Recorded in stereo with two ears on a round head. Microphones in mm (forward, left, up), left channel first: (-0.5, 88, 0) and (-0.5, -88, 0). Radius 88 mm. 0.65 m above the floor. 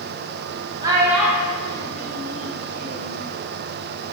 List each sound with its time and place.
0.8 s a child speaking: 20° right (ahead or behind), 0.7 m; by 3.2 s 45° left (ahead or behind), 1.2 m